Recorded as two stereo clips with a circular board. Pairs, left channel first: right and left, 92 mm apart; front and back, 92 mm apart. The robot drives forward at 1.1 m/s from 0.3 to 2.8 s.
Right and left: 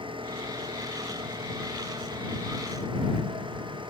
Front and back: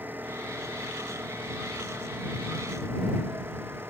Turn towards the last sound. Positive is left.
turn(degrees=115)